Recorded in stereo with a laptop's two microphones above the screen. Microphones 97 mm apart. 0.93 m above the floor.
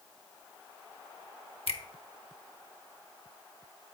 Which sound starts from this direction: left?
A finger snap, at 1.7 s.